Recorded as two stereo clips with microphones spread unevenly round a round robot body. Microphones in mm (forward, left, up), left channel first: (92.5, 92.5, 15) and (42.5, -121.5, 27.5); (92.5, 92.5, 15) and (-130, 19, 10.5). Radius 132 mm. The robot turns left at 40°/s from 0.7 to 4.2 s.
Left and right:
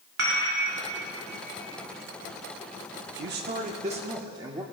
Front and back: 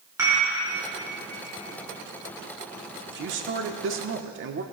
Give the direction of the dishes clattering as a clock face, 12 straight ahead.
3 o'clock.